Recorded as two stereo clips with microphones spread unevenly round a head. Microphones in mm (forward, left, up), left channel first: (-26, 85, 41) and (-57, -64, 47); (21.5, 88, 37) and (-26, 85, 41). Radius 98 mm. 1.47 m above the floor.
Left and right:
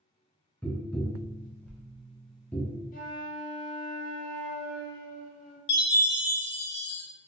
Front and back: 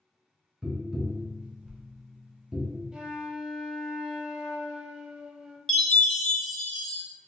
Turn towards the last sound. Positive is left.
turn(degrees=85)